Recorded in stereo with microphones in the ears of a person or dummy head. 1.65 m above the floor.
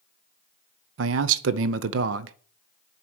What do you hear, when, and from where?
1.0 s a man speaking: 75° right (ahead or behind), 0.6 m